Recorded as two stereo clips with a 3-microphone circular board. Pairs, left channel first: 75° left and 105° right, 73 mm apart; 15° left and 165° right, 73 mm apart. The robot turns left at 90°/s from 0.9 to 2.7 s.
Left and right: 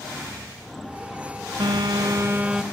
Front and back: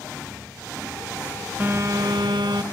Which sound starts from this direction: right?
A phone buzzing, at 1.6 s.